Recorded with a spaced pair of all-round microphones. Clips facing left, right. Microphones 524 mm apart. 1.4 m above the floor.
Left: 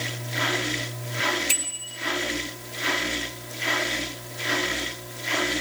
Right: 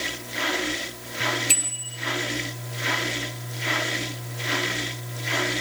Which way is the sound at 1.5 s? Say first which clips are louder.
Right 2 dB; 40° left (ahead or behind).